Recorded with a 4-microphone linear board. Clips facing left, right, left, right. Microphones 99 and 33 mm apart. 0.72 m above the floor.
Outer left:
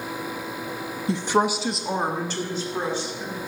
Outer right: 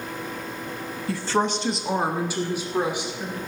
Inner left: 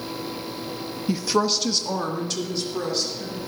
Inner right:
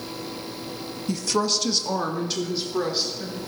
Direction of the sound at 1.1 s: 25° left (ahead or behind).